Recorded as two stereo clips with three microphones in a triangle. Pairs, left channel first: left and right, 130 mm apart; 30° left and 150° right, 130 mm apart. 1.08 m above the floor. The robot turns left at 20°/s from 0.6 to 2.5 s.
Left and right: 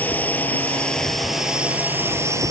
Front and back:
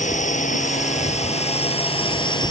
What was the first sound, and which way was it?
A drone, 10° left.